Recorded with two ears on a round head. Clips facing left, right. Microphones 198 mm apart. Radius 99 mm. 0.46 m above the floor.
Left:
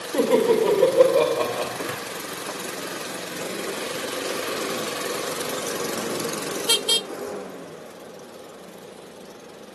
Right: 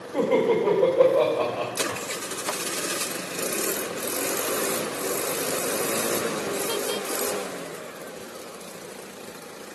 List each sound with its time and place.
0.1 s laughter: 50° left (ahead or behind), 1.8 m
1.9 s a drawer: 50° left (ahead or behind), 3 m